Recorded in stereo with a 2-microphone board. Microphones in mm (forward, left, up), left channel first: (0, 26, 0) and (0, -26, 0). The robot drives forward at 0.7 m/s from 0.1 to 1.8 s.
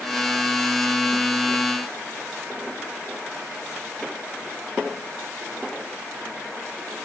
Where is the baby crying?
I don't hear a baby crying.